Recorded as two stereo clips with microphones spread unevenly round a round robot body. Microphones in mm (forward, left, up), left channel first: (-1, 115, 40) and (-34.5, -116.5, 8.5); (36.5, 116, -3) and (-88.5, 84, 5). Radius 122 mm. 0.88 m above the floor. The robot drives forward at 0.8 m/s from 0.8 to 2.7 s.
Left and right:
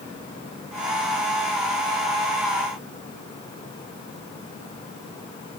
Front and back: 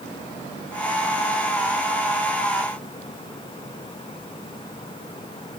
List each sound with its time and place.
Only background noise.